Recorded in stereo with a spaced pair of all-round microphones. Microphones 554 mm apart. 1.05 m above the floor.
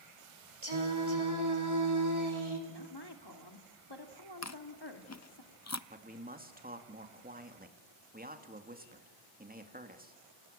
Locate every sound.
0.6 s singing: 55° right (ahead or behind), 4 m
2.7 s a woman speaking: 45° left (ahead or behind), 2 m
4.4 s chewing: 30° left (ahead or behind), 0.6 m
5.9 s a man speaking: 15° right (ahead or behind), 2.5 m